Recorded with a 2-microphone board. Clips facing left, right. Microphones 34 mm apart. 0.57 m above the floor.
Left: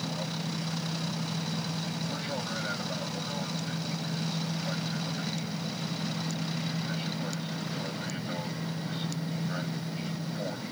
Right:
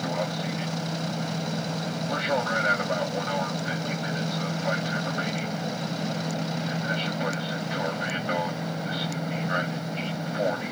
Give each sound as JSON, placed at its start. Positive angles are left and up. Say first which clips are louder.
{"t": 0.0, "sound": "an aircraft", "louder": "right 6 dB", "side_deg": -45}